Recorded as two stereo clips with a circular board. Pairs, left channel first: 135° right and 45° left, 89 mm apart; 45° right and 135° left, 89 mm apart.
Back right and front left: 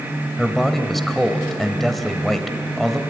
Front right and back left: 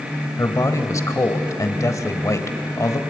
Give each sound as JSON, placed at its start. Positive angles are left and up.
{"t": 0.4, "sound": "a man speaking", "azimuth_deg": -50, "distance_m": 1.4}